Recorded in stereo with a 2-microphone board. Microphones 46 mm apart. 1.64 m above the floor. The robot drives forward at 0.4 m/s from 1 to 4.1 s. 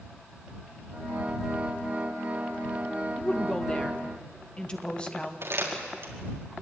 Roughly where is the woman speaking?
Left.